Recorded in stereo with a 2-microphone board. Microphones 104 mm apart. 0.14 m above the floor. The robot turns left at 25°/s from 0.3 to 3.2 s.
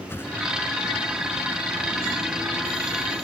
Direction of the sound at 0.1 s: 20° left (ahead or behind).